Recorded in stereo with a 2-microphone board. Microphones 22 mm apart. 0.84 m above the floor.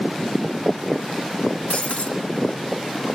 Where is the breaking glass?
85° left, 3.5 m.